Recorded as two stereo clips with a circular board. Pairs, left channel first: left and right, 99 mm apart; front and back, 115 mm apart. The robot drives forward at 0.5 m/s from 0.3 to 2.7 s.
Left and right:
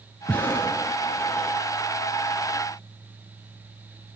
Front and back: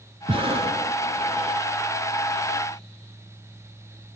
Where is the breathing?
160° left, 1.4 m; by 1.6 s 170° left, 2 m.